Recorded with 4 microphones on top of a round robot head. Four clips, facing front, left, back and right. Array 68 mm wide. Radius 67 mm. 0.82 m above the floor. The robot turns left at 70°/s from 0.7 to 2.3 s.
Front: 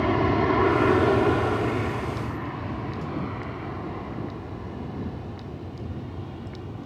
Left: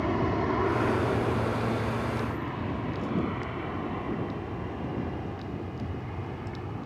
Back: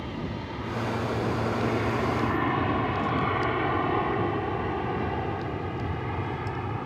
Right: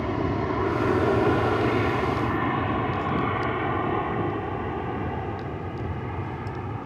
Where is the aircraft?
Straight ahead; by 6.9 s 150° right.